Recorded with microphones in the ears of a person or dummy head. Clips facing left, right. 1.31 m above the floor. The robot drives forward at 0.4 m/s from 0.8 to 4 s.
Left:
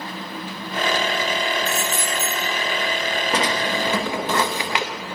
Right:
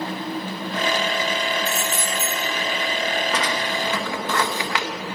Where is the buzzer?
No buzzer in this recording.